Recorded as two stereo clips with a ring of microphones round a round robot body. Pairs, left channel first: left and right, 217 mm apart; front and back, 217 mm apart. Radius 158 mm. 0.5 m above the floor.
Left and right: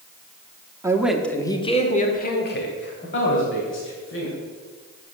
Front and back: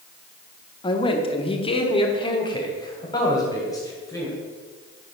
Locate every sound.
0.8 s a man speaking: 35° right, 0.9 m; by 4.3 s 75° left, 2.5 m